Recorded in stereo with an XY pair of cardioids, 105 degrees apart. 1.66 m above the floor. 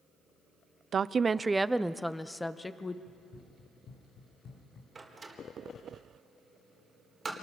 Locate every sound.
0.9 s a woman speaking: 45° right, 0.6 m; by 3.0 s 25° left, 1.1 m
3.1 s running footsteps: 60° left, 5.5 m
5.0 s a door slam: 25° right, 4 m